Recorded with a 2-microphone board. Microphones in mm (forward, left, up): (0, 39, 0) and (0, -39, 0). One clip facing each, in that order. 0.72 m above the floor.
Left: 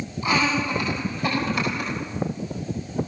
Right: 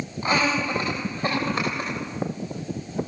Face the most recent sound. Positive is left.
turn(degrees=-35)  # may be behind; listen again after turning